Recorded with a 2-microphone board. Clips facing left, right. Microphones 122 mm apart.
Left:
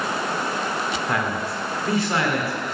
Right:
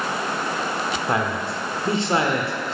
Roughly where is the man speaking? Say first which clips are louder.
Right 1 dB; right.